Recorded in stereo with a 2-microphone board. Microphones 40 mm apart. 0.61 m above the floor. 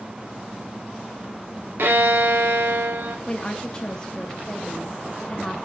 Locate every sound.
1.8 s a violin: 65° right (ahead or behind), 0.7 m
3.3 s a woman speaking: 20° left (ahead or behind), 0.6 m